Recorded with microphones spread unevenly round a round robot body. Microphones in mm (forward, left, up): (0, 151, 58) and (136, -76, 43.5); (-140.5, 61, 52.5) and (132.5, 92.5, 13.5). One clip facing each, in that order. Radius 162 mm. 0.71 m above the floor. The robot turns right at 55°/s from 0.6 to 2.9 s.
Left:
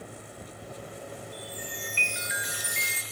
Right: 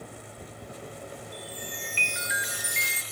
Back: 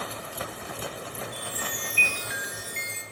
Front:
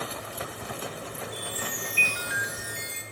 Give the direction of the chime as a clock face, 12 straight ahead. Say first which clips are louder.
Even, front 1 dB; 5 o'clock.